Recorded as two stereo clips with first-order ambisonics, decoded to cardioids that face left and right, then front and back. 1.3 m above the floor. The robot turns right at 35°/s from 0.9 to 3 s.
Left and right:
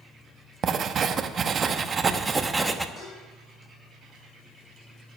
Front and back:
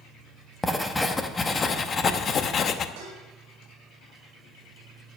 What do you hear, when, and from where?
0.6 s writing: 80° right, 0.7 m; by 2.9 s 10° right, 0.7 m
3.0 s dishes clattering: 165° left, 5 m